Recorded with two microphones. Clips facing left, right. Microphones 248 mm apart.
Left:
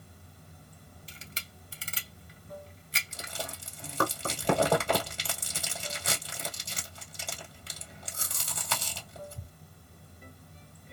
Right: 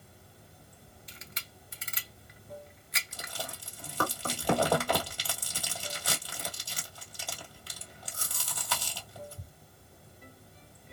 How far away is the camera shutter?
About 0.9 m.